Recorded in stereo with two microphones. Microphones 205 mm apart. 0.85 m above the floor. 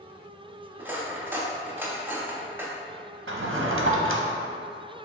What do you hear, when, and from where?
0.8 s cutlery clinking: 10° right (ahead or behind), 0.6 m
3.3 s a drawer: 75° right (ahead or behind), 0.5 m